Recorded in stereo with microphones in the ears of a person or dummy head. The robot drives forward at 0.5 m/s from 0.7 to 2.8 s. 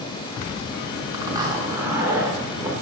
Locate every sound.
1.1 s a zipper: 20° right (ahead or behind), 1.5 m; by 2.7 s 15° right (ahead or behind), 2 m